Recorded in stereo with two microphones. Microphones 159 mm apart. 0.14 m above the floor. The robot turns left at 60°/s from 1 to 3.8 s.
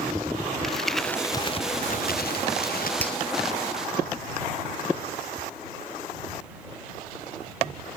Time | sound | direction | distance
0.6 | crumpling | 175° left | ?
3.0 | a finger snap | 10° left (ahead or behind) | ?